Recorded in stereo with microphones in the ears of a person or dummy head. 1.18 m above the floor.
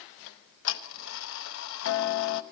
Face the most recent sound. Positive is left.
turn(degrees=65)  # may be behind; listen again after turning